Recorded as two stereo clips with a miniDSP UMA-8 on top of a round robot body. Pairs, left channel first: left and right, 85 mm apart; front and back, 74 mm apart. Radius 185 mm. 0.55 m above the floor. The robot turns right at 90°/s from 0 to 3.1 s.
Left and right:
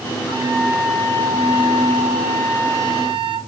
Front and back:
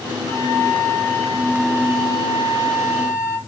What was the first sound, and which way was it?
A flute, 5° right.